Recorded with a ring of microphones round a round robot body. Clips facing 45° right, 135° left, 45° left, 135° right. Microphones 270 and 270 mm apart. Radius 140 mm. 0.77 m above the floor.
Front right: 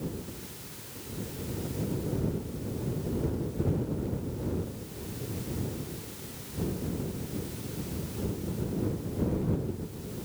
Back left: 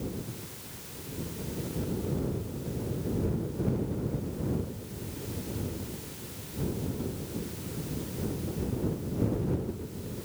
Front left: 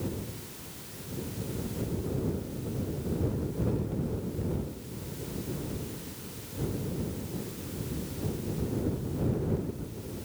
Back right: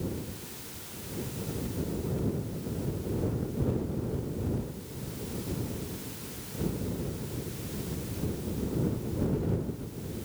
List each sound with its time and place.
Only background noise.